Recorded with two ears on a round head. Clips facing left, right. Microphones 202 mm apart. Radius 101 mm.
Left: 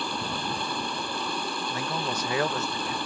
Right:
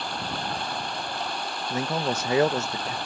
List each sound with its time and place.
0.0 s running water: 80° left
1.7 s a man speaking: 25° right (ahead or behind)